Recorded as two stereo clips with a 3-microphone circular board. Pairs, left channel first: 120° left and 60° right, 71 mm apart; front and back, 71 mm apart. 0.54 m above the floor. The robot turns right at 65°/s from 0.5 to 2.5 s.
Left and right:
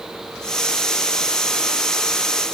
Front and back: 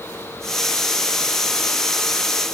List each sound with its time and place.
Only background noise.